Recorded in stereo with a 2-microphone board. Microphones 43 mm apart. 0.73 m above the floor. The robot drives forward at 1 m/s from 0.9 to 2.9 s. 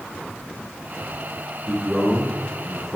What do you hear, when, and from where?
1.7 s a man speaking: 10° left (ahead or behind), 9 m